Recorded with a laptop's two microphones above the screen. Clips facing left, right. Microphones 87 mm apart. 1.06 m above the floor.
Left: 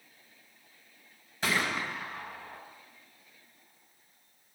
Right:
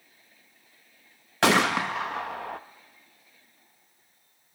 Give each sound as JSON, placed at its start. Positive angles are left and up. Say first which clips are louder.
{"t": 1.4, "sound": "a gunshot", "louder": "right 9 dB", "side_deg": -80, "distance_m": 1.0}